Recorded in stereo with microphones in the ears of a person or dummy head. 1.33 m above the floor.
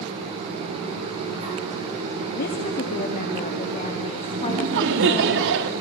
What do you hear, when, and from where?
2.4 s a woman speaking: 50° left (ahead or behind), 2.5 m; by 5.3 s 30° left (ahead or behind), 4 m
4.3 s laughter: 70° right (ahead or behind), 2.5 m